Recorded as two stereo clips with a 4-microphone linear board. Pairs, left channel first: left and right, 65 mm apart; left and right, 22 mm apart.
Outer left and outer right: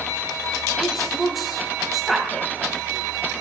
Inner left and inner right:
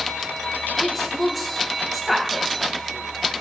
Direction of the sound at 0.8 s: 5° right (ahead or behind).